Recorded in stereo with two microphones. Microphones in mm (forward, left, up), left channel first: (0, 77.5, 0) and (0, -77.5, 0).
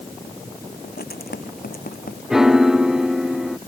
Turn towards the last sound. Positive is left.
turn(degrees=-5)  # may be behind; listen again after turning